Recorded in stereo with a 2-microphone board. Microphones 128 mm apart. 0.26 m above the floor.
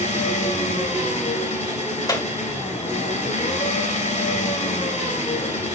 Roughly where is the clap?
Left.